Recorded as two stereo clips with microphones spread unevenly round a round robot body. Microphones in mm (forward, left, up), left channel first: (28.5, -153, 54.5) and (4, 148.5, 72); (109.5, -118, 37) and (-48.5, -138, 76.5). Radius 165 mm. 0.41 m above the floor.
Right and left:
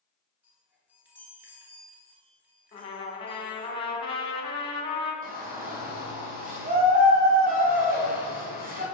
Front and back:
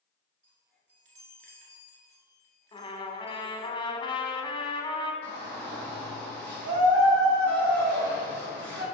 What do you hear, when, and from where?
0.4 s a chime: straight behind, 1.1 m
2.7 s a trumpet: 20° right, 1.2 m
5.2 s a shout: 160° left, 2 m